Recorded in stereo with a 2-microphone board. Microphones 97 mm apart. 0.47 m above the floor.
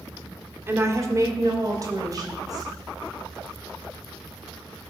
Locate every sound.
0.7 s a woman speaking: 25° right (ahead or behind), 1.4 m; by 2.7 s 40° right (ahead or behind), 4 m